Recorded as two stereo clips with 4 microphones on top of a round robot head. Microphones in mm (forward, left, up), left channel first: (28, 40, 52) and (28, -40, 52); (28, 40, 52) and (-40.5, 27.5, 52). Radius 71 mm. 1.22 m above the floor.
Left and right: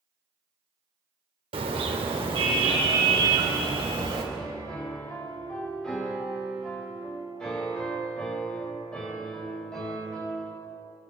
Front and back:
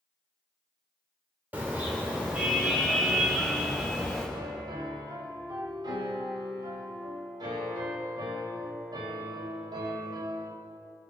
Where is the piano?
170° left, 4 m.